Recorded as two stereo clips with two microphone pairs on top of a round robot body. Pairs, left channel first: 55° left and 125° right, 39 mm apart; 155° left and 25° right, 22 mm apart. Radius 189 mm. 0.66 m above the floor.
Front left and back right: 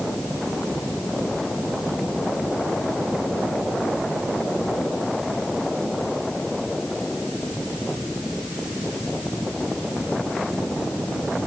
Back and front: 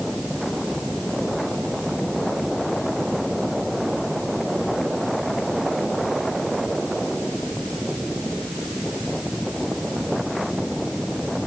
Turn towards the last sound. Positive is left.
No sound to turn to.